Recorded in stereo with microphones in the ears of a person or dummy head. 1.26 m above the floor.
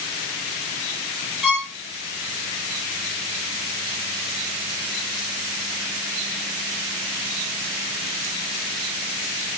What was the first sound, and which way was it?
A violin, centre (ahead or behind).